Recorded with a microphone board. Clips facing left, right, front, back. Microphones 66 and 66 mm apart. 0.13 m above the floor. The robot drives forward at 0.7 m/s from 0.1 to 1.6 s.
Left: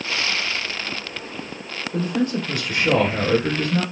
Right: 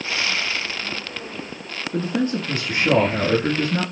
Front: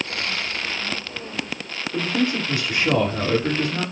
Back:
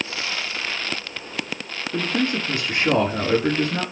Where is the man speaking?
135° right, 1.4 m.